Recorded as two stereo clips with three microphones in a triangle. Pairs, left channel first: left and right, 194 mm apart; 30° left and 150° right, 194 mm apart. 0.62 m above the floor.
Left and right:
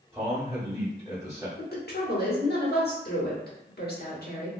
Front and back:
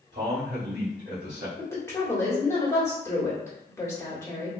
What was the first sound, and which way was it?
A man speaking, 160° right.